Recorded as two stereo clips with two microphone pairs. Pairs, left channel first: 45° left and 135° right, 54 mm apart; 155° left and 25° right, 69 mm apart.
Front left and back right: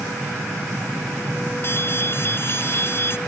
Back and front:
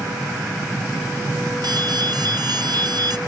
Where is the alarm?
5° right.